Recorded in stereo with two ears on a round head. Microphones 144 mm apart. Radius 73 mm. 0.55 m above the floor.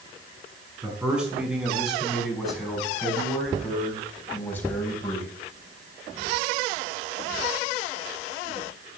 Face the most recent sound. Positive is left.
turn(degrees=20)  # may be behind; listen again after turning